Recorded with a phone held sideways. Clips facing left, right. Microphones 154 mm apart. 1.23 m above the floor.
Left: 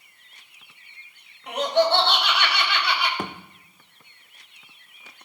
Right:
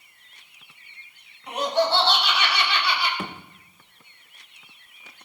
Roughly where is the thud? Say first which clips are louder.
Left 2 dB; left.